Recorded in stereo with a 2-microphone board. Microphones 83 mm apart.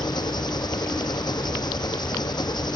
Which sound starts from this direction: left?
An engine running, at 0.0 s.